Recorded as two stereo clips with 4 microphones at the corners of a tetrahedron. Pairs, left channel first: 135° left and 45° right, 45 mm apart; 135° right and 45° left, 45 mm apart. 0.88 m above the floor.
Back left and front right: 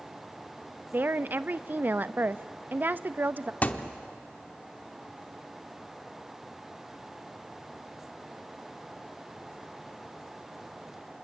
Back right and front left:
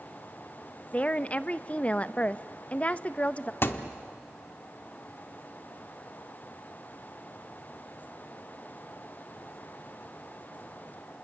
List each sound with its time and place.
0.9 s a woman speaking: 80° right, 0.5 m
3.6 s a thud: 175° right, 0.9 m